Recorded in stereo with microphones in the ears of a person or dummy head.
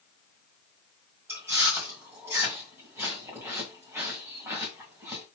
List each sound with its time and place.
1.3 s chewing: 15° right (ahead or behind), 1.6 m